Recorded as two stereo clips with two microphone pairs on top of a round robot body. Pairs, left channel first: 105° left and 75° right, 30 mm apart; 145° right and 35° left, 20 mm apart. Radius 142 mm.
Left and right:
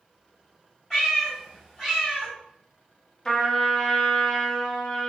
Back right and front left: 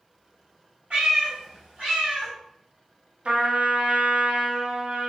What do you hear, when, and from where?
0.9 s a cat meowing: 40° left, 1.1 m
3.2 s a trumpet: 35° left, 0.7 m